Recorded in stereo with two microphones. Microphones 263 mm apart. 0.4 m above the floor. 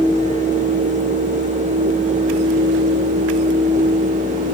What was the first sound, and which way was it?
Only background noise.